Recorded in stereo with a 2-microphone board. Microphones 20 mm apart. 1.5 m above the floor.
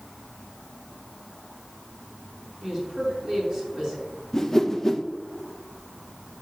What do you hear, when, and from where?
2.6 s a woman speaking: 45° right (ahead or behind), 3.5 m
4.3 s a whoosh: 20° left (ahead or behind), 0.7 m